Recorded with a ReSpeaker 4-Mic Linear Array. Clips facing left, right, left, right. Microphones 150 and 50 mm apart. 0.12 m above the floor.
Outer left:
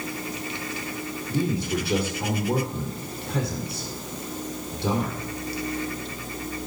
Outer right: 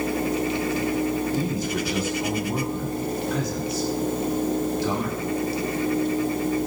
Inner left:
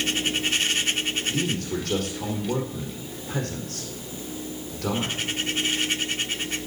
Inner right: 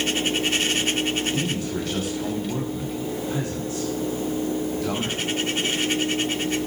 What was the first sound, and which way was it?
A man speaking, 60° left (ahead or behind).